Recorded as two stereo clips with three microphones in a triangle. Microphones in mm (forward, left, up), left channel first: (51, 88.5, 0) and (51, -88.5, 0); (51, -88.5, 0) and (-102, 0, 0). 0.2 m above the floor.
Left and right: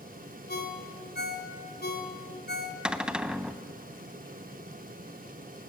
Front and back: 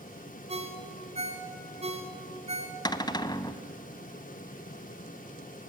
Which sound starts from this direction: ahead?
A cupboard door, at 2.9 s.